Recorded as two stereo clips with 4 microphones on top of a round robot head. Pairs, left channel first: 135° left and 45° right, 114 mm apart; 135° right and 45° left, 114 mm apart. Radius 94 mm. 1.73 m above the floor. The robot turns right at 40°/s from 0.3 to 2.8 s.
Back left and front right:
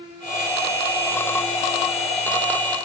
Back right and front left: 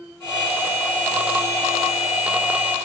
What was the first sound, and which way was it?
Only background noise.